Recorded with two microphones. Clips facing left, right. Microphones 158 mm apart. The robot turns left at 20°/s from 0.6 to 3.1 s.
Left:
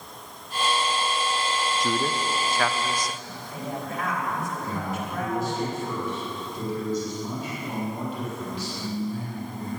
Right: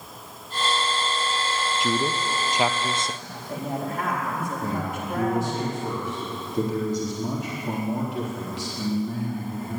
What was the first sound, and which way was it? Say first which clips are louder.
A man speaking: right 3 dB; 5° right (ahead or behind).